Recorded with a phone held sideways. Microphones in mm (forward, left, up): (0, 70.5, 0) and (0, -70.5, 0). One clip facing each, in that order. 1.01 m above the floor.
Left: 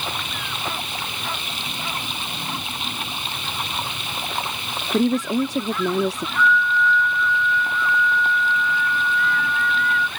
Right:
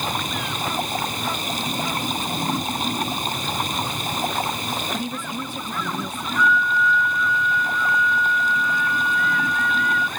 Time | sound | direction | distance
0.0 | running water | 40° right (ahead or behind) | ?
4.9 | a woman speaking | 80° left | ?
6.4 | a flute | 5° right (ahead or behind) | ?